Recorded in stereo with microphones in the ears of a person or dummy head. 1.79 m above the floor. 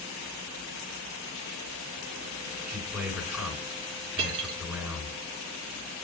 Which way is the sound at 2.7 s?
10° right (ahead or behind).